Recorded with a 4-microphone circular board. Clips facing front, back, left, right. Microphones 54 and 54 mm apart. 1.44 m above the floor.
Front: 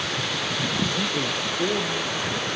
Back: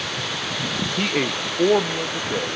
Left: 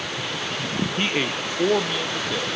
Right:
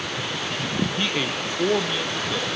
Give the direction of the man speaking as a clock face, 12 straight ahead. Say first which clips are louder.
Back 3 dB, left 1 dB; 7 o'clock.